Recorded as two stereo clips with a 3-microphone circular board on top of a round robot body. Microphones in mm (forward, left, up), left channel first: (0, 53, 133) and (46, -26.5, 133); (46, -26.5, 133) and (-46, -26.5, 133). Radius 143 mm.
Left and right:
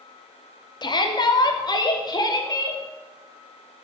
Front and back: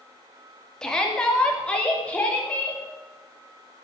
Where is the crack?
I don't hear a crack.